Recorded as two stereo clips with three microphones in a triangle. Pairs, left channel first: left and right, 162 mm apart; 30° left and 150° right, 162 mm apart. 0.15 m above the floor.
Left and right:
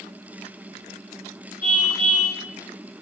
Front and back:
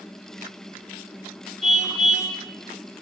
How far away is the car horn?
About 8.5 m.